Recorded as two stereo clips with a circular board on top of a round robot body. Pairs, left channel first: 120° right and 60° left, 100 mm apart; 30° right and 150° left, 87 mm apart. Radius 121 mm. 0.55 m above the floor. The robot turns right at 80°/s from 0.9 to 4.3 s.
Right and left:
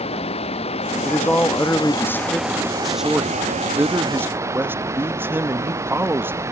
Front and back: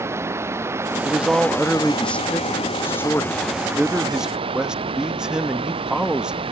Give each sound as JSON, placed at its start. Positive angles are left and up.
{"t": 0.0, "sound": "running water", "azimuth_deg": -145}
{"t": 1.1, "sound": "a man speaking", "azimuth_deg": -175}